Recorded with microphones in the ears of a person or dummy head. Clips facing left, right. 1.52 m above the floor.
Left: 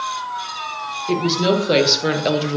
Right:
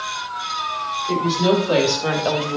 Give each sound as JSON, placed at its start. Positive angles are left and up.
{"t": 1.1, "sound": "a woman speaking", "side_deg": 35, "distance_m": 2.0}